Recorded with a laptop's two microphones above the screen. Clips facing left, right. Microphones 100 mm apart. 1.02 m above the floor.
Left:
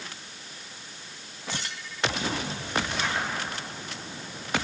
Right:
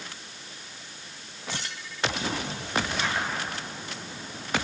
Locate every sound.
Only background noise.